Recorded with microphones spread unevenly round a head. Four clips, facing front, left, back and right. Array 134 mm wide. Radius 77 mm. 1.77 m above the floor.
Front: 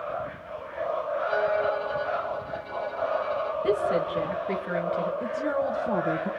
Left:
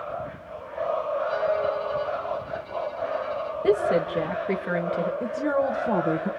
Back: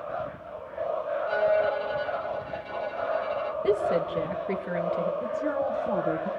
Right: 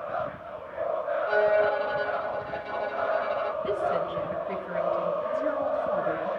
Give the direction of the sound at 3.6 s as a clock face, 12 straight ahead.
8 o'clock.